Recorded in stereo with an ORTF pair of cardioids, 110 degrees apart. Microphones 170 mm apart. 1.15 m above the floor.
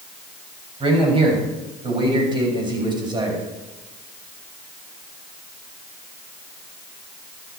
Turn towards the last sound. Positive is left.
turn(degrees=-25)